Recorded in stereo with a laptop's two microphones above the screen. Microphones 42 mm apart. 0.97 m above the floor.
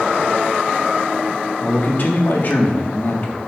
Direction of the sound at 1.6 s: 45° left (ahead or behind).